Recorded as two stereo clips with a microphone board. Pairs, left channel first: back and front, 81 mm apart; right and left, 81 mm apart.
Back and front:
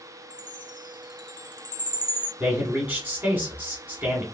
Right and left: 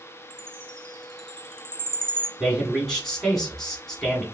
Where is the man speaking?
15° right, 1.2 m.